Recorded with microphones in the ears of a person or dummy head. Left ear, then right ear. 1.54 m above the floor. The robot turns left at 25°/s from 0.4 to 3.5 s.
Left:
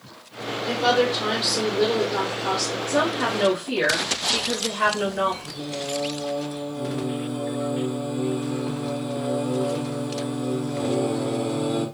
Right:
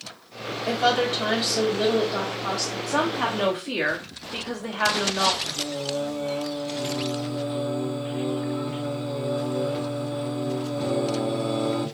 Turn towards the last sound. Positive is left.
turn(degrees=-20)  # may be behind; listen again after turning